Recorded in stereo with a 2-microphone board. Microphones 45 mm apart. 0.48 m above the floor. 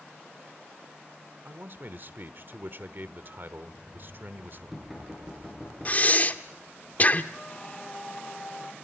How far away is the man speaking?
About 1.1 m.